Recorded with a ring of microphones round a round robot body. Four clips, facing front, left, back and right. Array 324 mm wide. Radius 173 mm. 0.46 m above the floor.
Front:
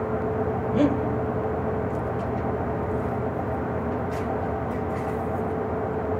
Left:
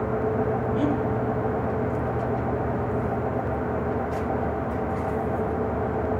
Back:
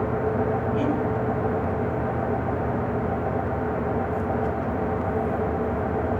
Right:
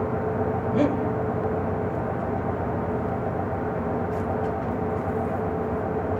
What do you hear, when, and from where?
0.7 s breathing: 50° right, 2.5 m